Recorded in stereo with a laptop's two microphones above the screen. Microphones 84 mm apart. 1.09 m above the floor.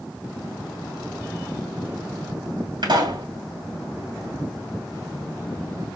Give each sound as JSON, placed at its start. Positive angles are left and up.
{"t": 2.8, "sound": "a pop", "side_deg": -65, "distance_m": 3.0}